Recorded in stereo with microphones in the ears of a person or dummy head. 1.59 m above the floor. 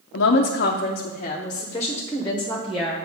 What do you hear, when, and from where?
0.1 s a woman speaking: 70° left (ahead or behind), 0.7 m; by 3.0 s centre (ahead or behind), 1.4 m